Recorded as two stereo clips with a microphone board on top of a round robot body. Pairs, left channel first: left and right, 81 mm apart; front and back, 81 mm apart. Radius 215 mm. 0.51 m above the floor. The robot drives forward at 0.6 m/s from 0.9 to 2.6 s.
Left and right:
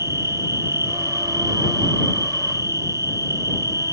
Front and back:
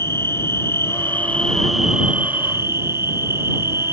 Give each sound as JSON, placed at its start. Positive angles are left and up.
{"t": 0.0, "sound": "an insect", "azimuth_deg": -50}